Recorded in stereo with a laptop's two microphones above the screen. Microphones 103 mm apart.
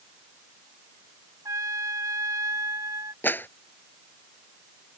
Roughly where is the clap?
Centre.